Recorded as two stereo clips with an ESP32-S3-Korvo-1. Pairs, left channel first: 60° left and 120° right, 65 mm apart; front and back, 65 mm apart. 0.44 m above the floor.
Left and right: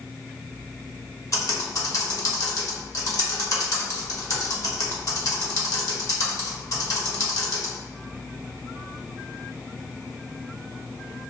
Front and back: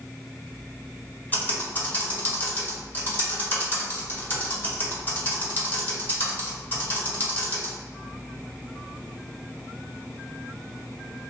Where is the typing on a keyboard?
55° left, 1.0 m.